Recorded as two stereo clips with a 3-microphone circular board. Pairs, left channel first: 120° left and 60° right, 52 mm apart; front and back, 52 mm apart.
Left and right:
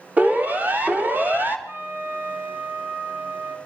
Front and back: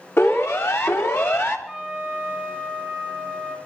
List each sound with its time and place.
0.2 s a siren: 10° right, 2.5 m; by 1.6 s 20° right, 3 m
1.7 s a trumpet: 100° right, 5.5 m